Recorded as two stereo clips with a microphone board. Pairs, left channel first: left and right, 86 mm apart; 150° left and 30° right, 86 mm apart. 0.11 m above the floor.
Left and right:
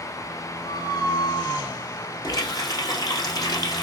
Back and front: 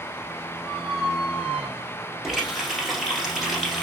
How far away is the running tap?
About 1.8 m.